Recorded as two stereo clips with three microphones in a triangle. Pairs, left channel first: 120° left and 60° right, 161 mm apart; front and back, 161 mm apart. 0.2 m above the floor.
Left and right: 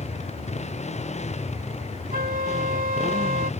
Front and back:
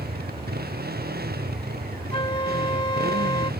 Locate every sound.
0.0 s a motorcycle: 165° left
2.1 s a flute: 50° right